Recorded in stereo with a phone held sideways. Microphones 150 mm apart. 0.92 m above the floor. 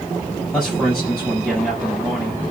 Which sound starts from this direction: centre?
A man speaking, at 0.5 s.